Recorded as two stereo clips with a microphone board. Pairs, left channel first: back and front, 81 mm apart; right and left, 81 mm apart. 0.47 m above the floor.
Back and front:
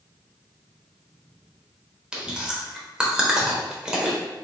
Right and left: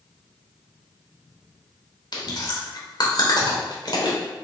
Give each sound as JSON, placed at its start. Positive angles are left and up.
{"t": 2.1, "sound": "chewing", "azimuth_deg": -80, "distance_m": 0.9}